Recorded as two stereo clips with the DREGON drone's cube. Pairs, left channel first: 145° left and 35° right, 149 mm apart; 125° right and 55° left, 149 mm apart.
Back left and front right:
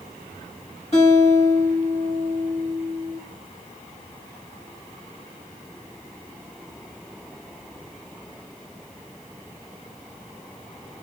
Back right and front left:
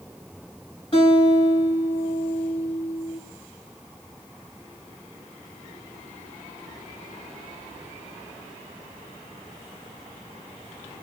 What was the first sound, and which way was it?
A guitar, 175° right.